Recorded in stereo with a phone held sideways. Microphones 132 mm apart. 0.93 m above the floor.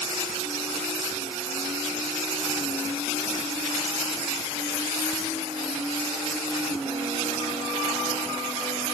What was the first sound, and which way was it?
Only background noise.